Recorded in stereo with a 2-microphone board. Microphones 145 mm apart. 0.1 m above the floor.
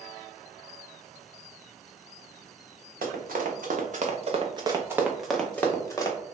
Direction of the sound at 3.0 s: 80° right.